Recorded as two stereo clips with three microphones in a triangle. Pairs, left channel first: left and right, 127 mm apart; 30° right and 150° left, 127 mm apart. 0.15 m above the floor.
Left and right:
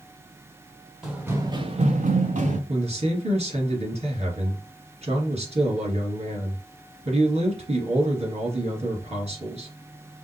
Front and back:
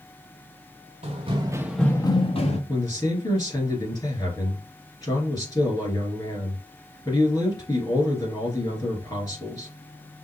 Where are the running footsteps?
175° right, 1.1 m; by 2.6 s 65° right, 1.3 m.